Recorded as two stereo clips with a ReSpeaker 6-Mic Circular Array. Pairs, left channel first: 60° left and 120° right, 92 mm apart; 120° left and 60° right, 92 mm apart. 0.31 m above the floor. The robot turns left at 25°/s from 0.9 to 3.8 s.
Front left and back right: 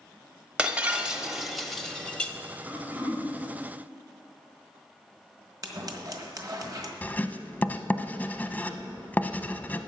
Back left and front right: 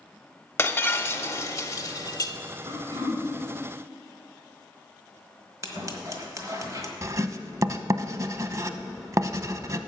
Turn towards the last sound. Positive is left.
turn(degrees=-10)